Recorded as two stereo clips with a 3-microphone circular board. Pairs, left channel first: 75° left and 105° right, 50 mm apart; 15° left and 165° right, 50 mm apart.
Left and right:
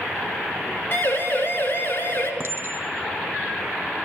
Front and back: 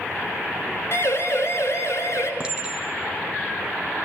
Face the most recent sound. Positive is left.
turn(degrees=-95)